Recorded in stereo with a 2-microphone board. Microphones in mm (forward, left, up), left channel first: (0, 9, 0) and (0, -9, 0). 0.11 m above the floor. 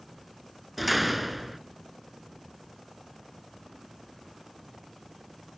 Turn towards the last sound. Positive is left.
turn(degrees=0)  # may be behind; listen again after turning